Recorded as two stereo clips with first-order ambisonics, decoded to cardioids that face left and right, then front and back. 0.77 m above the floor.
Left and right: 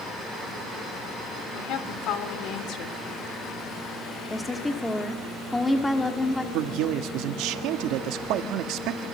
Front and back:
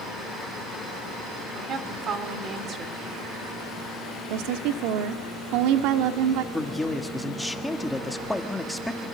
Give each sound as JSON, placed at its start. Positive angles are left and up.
{"t": 1.6, "sound": "a woman speaking", "azimuth_deg": 120, "distance_m": 2.5}
{"t": 4.3, "sound": "a woman speaking", "azimuth_deg": 170, "distance_m": 1.4}
{"t": 6.5, "sound": "a man speaking", "azimuth_deg": -85, "distance_m": 1.6}